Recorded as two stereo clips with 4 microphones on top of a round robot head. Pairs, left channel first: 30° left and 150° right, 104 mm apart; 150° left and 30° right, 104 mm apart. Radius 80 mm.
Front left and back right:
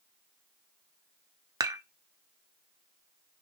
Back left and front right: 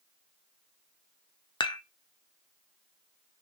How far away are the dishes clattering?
About 0.6 m.